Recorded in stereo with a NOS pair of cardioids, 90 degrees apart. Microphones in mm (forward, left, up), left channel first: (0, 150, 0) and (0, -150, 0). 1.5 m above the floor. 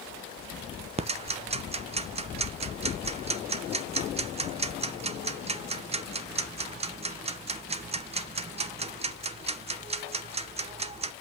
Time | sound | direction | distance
1.0 | ticking | 20° right | 0.8 m